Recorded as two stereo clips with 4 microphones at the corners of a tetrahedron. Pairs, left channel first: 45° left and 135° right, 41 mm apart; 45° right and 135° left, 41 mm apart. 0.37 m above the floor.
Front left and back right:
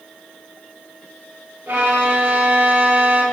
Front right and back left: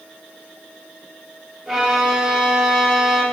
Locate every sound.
1.7 s a violin: 145° right, 0.5 m